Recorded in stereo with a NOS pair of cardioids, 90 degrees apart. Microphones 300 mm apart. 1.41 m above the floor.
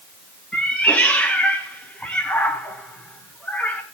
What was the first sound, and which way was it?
A cat meowing, 5° left.